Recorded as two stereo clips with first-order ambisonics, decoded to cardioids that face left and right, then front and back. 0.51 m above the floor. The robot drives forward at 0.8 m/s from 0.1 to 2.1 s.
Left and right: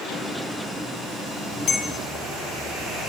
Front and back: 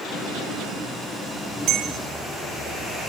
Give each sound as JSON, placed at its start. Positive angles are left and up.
{"t": 1.7, "sound": "a bell", "azimuth_deg": 145, "distance_m": 0.6}